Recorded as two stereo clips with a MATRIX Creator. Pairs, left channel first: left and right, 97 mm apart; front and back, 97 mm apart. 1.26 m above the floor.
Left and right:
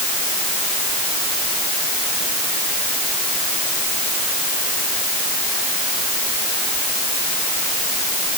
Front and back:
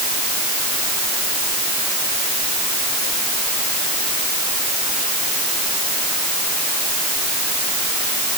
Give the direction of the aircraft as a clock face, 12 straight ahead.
I don't hear an aircraft.